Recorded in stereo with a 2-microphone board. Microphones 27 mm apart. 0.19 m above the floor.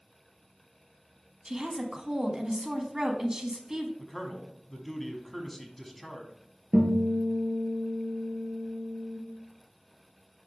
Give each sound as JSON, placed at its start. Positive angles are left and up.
{"t": 1.4, "sound": "a woman speaking", "side_deg": -20, "distance_m": 1.1}
{"t": 4.0, "sound": "a man speaking", "side_deg": 15, "distance_m": 1.1}
{"t": 6.7, "sound": "a guitar", "side_deg": -10, "distance_m": 2.0}